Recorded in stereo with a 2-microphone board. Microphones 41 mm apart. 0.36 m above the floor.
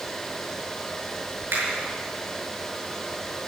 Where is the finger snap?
80° right, 5.5 m.